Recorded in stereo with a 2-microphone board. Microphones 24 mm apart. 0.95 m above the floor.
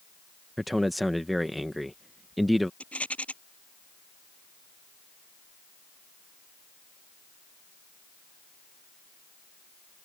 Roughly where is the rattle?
Left.